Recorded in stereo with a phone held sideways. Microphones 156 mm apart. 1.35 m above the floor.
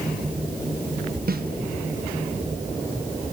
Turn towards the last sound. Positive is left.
turn(degrees=-70)  # may be behind; listen again after turning